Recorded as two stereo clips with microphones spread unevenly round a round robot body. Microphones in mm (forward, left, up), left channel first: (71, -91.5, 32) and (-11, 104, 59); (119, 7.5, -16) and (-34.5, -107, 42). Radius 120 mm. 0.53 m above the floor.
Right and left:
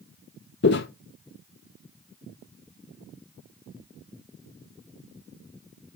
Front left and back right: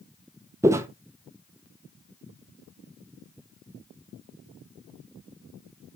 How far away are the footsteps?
About 0.6 m.